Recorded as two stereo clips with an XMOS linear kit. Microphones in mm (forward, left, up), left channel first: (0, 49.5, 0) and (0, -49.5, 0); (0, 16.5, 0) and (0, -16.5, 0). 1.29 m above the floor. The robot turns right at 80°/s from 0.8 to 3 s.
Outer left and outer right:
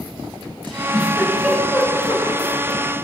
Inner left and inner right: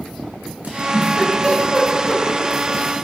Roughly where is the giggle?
Right.